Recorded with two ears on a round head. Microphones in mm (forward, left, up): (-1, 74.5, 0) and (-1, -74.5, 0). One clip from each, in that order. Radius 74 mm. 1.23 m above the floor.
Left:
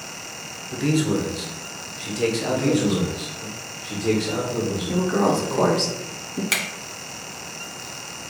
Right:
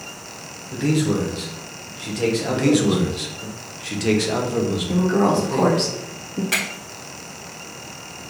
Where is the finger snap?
70° left (ahead or behind), 1.0 m.